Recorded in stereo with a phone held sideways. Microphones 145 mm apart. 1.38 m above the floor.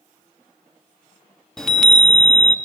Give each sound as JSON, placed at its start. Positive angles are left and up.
{"t": 1.6, "sound": "a chime", "side_deg": 5, "distance_m": 0.8}